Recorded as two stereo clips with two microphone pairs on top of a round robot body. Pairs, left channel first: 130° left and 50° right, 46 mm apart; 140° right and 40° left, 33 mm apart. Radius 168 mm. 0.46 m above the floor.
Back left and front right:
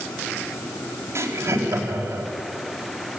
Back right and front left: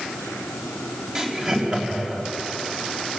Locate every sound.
1.1 s laughter: 25° right, 4 m